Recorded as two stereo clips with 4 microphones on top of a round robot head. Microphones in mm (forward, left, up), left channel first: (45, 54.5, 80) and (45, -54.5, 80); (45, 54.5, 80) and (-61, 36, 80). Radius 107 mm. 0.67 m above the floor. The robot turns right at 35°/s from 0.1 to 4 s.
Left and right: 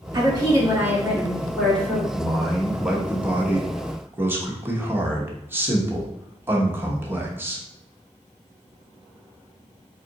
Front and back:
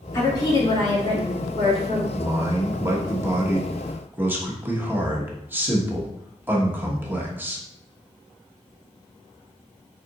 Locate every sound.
0.1 s a woman speaking: 45° right, 2 m; by 2.0 s 20° left, 2 m
2.1 s a man speaking: 165° left, 1.1 m; by 7.6 s 130° right, 1.1 m